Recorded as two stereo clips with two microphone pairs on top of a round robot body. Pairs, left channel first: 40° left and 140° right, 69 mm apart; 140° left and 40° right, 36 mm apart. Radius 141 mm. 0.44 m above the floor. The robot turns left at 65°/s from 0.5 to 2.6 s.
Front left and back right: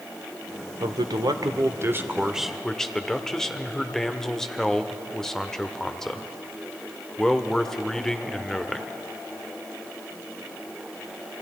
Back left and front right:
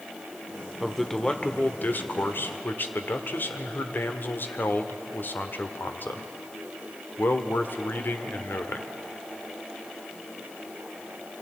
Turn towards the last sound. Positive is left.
turn(degrees=120)